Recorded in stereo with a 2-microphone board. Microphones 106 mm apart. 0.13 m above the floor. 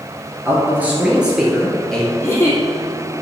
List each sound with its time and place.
0.5 s a man speaking: 20° right (ahead or behind), 2.5 m; by 2.1 s 5° left (ahead or behind), 3 m
2.2 s a giggle: 25° left (ahead or behind), 1.8 m